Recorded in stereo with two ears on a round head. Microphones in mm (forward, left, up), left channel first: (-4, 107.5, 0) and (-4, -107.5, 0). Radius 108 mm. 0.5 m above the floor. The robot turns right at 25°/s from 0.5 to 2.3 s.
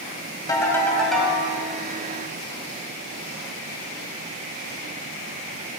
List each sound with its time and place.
0.5 s a ringtone: 15° left (ahead or behind), 2 m; by 1.4 s 5° right (ahead or behind), 2 m